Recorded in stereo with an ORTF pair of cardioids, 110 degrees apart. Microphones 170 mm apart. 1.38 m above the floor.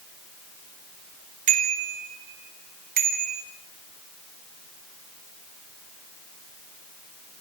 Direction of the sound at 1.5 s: 50° right.